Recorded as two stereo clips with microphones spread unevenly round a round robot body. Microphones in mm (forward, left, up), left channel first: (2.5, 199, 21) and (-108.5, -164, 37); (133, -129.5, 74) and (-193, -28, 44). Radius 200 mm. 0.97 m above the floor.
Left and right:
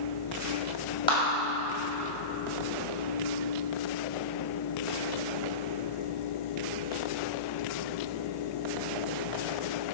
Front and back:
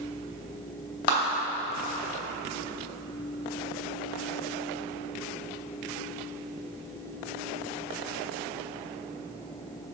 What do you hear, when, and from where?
1.1 s a clap: 5° right, 2.5 m